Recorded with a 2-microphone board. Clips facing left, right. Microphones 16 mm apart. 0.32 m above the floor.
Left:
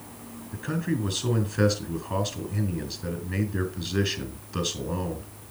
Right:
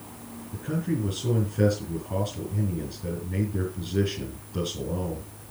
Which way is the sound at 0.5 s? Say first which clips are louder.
Even; 75° left (ahead or behind).